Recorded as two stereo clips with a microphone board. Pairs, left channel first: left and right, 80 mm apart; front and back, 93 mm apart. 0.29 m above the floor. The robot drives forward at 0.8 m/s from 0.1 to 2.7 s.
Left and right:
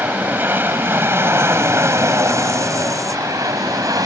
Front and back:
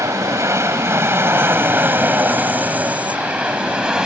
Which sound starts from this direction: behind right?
An aircraft, at 0.0 s.